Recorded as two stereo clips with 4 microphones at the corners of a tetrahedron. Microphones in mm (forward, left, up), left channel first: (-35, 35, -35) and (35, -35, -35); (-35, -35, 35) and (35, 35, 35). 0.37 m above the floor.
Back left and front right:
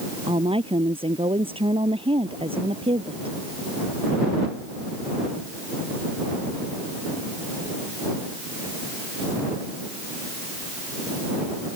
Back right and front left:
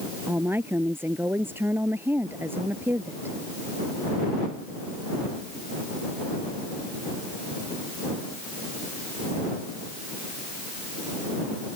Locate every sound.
0.3 s a woman speaking: 25° right